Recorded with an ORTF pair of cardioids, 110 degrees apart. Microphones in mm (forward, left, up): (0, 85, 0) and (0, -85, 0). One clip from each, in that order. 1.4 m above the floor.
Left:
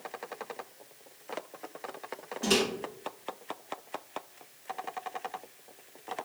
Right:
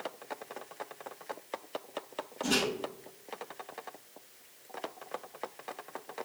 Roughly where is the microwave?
Ahead left.